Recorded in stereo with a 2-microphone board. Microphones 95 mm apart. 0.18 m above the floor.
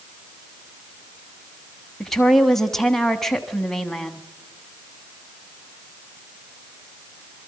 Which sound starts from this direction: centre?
A woman speaking, at 2.0 s.